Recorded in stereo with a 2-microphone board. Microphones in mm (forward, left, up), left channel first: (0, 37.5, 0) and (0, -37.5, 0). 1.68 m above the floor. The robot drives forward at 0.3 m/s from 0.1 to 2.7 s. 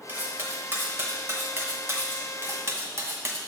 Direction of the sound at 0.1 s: 25° right (ahead or behind).